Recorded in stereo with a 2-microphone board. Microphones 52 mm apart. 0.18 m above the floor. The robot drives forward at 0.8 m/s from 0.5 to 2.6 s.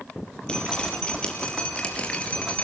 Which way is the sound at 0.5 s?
20° left (ahead or behind).